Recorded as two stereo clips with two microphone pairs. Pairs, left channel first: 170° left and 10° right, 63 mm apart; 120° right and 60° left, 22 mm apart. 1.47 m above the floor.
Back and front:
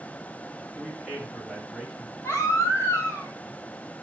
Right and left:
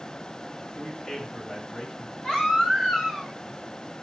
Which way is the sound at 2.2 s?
140° right.